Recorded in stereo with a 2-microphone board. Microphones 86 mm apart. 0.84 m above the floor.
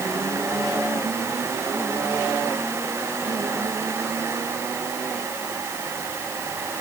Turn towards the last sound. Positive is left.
No sound to turn to.